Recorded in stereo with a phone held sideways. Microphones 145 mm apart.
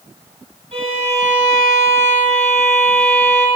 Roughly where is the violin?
Right.